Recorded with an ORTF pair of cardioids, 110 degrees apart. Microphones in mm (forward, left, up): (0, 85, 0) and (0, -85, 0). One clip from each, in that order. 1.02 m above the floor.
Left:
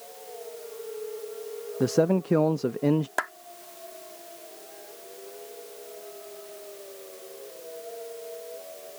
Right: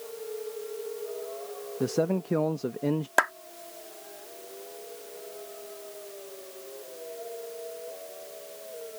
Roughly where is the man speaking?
Ahead.